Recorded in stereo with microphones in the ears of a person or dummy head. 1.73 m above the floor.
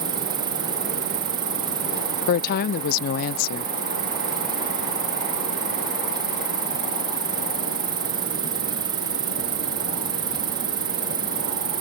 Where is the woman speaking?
55° left (ahead or behind).